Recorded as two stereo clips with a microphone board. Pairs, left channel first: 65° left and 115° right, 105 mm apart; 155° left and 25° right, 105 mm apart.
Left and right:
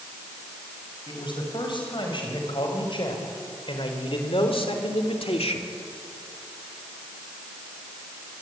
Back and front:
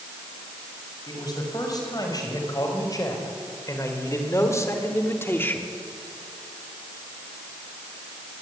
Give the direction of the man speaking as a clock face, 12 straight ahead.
8 o'clock.